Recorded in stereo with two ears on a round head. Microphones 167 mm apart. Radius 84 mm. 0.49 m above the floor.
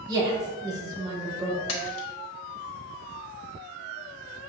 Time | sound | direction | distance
0.1 | a woman speaking | 20° right (ahead or behind) | 0.8 m
1.7 | a splash | 80° left | 0.9 m